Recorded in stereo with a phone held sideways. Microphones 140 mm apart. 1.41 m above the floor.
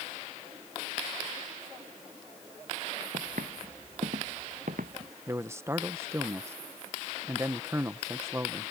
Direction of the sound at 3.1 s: 70° right (ahead or behind).